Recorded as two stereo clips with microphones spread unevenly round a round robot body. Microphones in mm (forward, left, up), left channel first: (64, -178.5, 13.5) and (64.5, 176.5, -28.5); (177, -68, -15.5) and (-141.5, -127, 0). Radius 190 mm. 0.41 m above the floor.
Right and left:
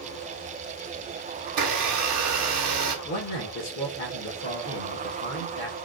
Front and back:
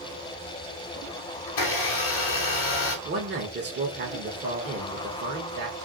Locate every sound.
1.5 s a blender: 50° left, 1.2 m
3.0 s a man speaking: 135° right, 1.0 m